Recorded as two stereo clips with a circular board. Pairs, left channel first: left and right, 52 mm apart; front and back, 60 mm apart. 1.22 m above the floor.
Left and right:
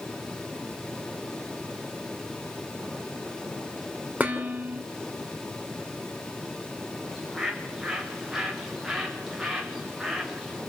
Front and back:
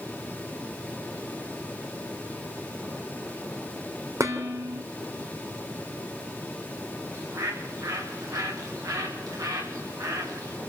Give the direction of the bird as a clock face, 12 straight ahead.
6 o'clock.